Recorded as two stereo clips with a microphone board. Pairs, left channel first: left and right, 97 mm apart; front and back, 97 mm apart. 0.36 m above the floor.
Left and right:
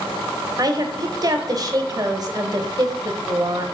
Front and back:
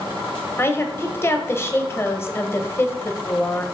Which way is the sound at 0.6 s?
55° right.